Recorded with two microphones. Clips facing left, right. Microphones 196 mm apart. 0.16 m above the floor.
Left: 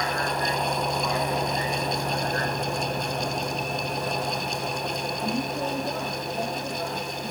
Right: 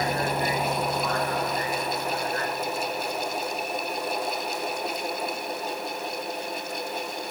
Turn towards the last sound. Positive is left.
turn(degrees=75)  # may be behind; listen again after turning